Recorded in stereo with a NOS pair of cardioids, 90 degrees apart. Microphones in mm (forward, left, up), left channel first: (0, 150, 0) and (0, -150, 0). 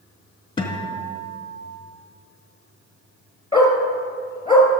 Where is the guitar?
15° left, 2 m.